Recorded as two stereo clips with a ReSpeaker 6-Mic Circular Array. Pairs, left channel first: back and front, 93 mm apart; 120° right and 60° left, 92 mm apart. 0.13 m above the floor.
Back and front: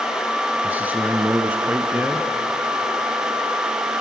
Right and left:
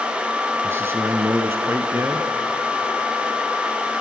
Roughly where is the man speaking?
Ahead left.